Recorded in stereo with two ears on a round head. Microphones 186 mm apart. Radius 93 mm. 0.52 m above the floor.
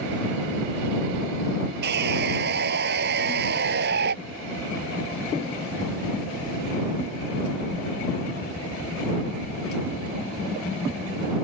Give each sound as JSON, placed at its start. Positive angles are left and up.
{"t": 1.8, "sound": "sawing", "side_deg": -55}